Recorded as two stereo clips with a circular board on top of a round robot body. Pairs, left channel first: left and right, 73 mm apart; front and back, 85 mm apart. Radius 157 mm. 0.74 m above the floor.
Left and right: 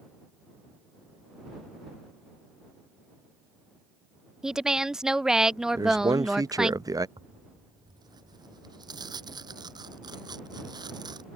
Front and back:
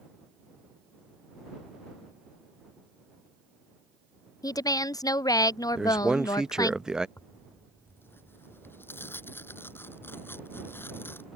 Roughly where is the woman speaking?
Ahead.